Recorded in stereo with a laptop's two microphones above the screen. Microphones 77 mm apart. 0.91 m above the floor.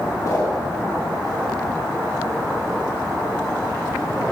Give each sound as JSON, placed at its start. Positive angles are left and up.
{"t": 0.2, "sound": "a whoosh", "side_deg": 50, "distance_m": 2.5}